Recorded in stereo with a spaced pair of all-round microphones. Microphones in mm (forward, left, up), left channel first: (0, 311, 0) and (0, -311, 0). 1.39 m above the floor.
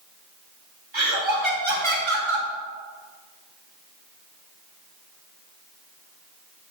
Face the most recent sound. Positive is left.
turn(degrees=-45)  # may be behind; listen again after turning